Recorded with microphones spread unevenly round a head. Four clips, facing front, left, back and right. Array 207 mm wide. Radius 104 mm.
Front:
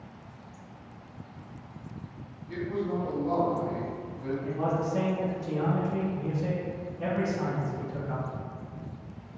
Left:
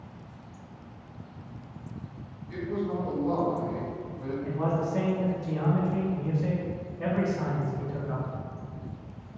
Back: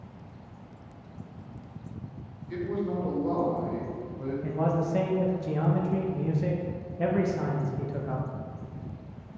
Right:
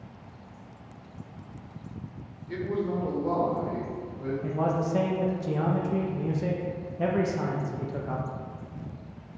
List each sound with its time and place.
2.5 s a man speaking: 90° right, 1.2 m; by 4.3 s 170° right, 1.3 m
4.4 s a man speaking: 120° right, 0.6 m